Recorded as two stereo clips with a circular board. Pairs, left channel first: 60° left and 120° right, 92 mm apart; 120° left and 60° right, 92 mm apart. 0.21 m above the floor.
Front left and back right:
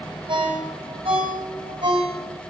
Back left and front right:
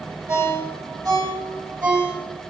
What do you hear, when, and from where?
0.3 s a ringtone: 120° right, 6 m